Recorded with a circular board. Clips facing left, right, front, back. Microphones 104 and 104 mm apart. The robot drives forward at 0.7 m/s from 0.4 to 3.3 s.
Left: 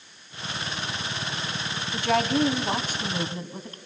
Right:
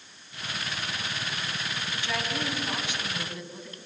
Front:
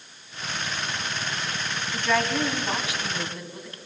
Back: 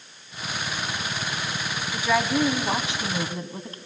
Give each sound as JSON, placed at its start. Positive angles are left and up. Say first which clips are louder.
{"t": 1.9, "sound": "a woman speaking", "louder": "left 11 dB, back 2 dB", "azimuth_deg": 95, "distance_m": 1.6}